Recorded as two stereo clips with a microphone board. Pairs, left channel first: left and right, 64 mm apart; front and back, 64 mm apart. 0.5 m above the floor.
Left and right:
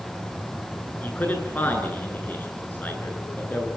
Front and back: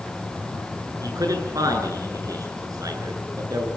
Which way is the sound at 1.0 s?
155° left.